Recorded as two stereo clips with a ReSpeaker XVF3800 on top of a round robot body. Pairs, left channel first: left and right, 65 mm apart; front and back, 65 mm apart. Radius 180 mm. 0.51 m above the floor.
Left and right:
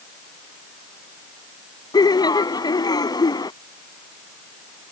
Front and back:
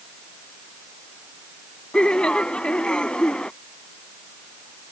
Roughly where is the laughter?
Left.